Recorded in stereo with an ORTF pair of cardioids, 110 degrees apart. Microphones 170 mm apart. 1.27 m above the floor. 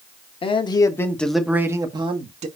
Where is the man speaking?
35° left, 1.6 m; by 2.5 s 40° right, 1.7 m.